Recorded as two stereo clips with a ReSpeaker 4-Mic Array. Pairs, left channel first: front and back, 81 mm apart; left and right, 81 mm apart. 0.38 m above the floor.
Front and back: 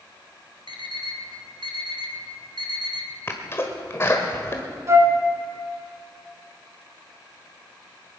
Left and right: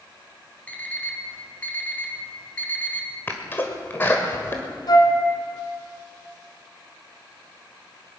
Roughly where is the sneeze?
Ahead left.